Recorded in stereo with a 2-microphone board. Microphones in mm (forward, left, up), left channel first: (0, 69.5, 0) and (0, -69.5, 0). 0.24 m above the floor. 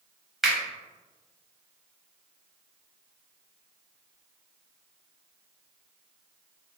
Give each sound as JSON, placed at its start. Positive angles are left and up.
{"t": 0.4, "sound": "a finger snap", "side_deg": 0, "distance_m": 0.9}